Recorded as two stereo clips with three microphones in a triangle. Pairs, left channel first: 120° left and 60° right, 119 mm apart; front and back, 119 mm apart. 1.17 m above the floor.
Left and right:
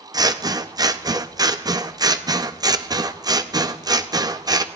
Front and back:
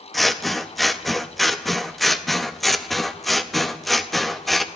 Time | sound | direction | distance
0.1 | scissors | 90° right | 0.5 m